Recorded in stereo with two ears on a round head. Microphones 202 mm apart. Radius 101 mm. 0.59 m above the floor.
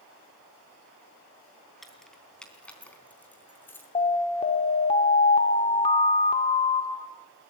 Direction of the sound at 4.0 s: 25° left (ahead or behind).